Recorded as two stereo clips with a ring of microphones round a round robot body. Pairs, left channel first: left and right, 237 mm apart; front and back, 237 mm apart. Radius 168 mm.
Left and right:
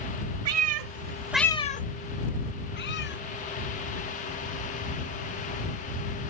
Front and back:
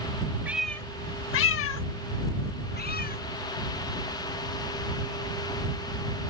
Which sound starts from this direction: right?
A cat meowing, at 0.5 s.